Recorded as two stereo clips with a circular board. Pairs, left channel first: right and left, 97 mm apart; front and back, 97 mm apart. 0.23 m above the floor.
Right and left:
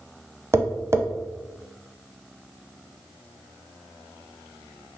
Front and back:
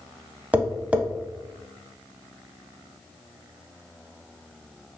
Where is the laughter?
I don't hear laughter.